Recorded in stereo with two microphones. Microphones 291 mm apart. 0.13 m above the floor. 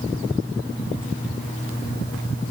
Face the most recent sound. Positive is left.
No sound to turn to.